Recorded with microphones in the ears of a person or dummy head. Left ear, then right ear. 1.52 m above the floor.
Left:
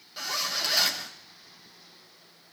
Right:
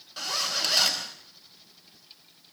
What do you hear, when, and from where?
0.2 s a zipper: 5° right (ahead or behind), 4 m